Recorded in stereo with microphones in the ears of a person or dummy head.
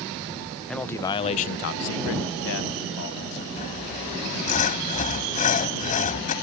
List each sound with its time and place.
0.7 s a man speaking: 5° left (ahead or behind); by 3.5 s 55° left (ahead or behind)
3.6 s sawing: 35° left (ahead or behind)